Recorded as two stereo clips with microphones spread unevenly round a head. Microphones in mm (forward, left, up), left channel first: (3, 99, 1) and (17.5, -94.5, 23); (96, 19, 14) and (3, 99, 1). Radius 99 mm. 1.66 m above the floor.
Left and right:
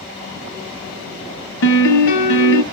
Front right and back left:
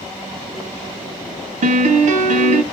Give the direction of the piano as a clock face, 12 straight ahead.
8 o'clock.